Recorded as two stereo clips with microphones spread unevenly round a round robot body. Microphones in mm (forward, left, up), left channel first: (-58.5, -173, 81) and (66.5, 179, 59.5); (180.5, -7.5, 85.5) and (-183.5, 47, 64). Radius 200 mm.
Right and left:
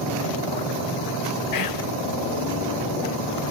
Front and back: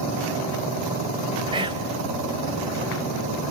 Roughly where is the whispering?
Behind right.